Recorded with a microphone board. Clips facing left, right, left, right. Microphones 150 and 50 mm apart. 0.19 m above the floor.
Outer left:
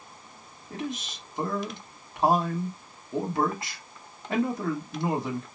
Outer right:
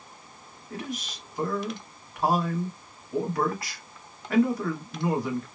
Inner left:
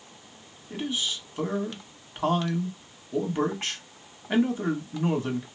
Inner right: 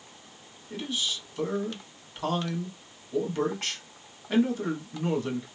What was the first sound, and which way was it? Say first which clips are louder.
A man speaking: outer left 2 dB, inner left 2 dB; 25° left (ahead or behind).